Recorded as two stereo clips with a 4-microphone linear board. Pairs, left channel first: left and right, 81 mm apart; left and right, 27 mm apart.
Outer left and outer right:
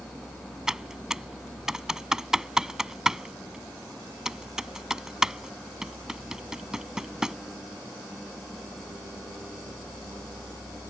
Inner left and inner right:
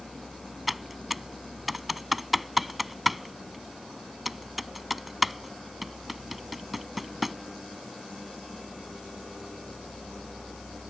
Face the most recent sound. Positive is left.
turn(degrees=-10)  # may be behind; listen again after turning